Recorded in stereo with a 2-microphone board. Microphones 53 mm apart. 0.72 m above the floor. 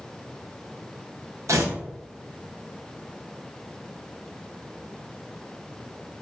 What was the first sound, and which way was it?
Tearing paper, 85° right.